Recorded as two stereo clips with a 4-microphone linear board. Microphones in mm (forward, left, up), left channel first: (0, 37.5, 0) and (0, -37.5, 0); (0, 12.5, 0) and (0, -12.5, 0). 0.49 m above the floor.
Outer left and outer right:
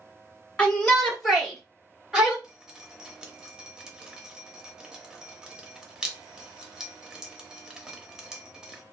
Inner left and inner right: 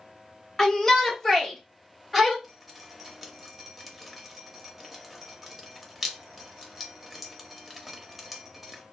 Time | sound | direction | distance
0.6 | a shout | 15° left (ahead or behind) | 1.2 m
2.4 | dripping | 10° right (ahead or behind) | 0.6 m